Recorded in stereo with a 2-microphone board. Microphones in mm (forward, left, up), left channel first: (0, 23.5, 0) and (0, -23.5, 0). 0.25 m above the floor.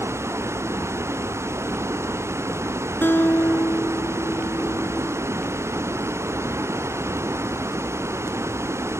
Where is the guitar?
50° left (ahead or behind).